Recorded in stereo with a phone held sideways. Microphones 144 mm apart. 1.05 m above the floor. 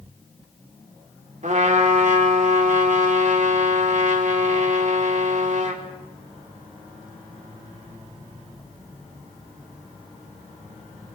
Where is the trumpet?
55° right (ahead or behind), 2.5 m.